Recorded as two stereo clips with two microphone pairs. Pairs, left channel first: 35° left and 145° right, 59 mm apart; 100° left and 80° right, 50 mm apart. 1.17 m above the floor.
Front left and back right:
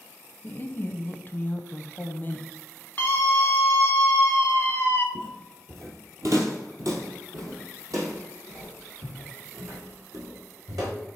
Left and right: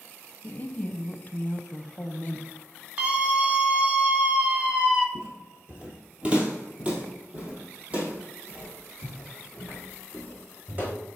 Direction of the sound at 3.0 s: 15° right.